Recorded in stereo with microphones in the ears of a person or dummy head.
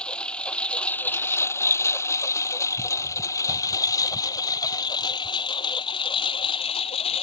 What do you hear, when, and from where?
0.0 s a lawn mower: 5° left (ahead or behind); by 7.2 s 25° left (ahead or behind)